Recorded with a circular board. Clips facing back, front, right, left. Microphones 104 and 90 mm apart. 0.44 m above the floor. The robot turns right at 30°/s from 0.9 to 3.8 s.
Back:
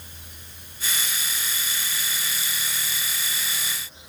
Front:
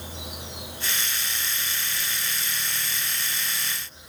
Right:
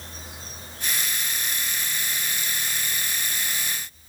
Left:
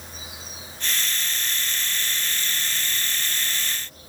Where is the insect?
5° left; by 4.1 s 90° left.